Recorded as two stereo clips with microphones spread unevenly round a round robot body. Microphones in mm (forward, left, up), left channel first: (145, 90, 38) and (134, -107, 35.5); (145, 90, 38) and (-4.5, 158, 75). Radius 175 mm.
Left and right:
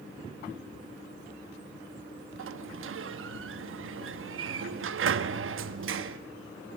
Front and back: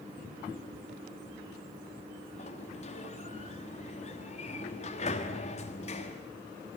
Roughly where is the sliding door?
Right.